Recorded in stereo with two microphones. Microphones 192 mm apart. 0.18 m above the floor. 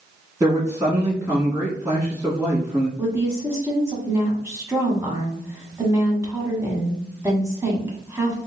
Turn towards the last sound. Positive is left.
turn(degrees=-15)  # may be behind; listen again after turning